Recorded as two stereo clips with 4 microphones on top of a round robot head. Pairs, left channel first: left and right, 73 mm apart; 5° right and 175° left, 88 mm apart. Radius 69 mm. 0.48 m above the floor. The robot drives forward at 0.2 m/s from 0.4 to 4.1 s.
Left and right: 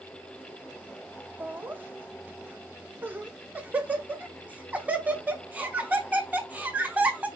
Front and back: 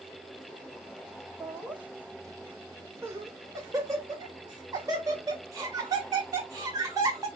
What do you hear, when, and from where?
1.4 s laughter: 110° right, 0.8 m; by 7.3 s 150° right, 1.1 m